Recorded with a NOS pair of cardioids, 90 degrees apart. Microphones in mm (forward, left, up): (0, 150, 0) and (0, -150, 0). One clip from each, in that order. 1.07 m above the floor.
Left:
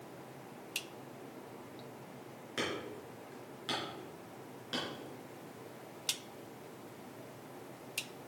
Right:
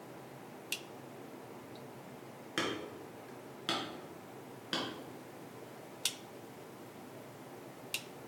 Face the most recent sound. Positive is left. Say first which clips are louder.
# right 1 dB
turn(degrees=-35)